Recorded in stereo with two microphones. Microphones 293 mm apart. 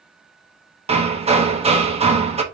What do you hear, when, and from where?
0.9 s hammering: 20° right (ahead or behind), 0.8 m